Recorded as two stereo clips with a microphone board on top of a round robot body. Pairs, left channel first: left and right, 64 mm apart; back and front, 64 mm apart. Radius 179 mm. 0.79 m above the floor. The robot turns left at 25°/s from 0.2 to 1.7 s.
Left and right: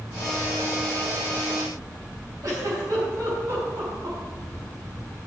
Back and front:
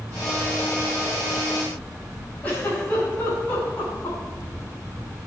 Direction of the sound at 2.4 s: 115° right.